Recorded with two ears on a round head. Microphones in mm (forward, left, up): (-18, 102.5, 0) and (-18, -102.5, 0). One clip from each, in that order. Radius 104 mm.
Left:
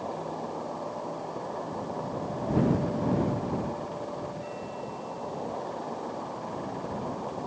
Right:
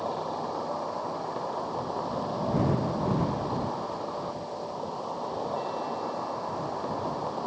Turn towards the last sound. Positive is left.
turn(degrees=-65)  # may be behind; listen again after turning